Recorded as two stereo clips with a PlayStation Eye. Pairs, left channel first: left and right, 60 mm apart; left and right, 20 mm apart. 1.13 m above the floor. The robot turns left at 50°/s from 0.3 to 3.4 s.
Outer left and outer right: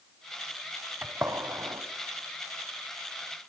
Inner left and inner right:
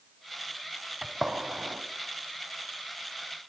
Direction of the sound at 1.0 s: 35° right (ahead or behind).